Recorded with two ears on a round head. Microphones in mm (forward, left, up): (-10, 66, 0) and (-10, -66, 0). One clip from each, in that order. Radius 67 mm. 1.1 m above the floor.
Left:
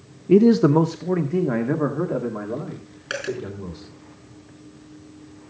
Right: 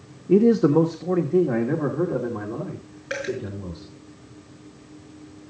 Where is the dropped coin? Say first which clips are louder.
Even; 65° left (ahead or behind), 5 m.